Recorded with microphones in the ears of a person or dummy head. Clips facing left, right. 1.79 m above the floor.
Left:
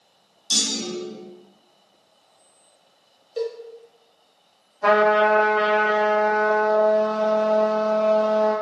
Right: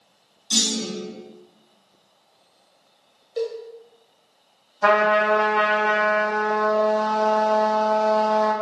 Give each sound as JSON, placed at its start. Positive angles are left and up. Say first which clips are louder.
{"t": 0.5, "sound": "a clunk", "louder": "right 2 dB", "side_deg": 45, "distance_m": 1.5}
{"t": 3.4, "sound": "a cowbell", "louder": "right 1 dB", "side_deg": 5, "distance_m": 0.8}
{"t": 4.8, "sound": "a trumpet", "louder": "left 2 dB", "side_deg": -70, "distance_m": 1.0}